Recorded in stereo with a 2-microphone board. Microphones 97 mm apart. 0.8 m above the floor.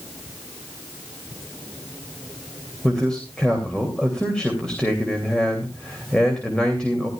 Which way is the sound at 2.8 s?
10° left (ahead or behind).